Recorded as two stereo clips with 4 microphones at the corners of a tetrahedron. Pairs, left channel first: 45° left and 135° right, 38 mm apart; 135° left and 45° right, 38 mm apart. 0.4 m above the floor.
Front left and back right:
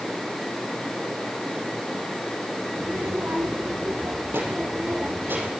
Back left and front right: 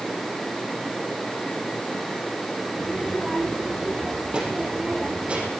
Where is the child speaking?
115° right, 6 m; by 5.5 s 100° right, 8.5 m.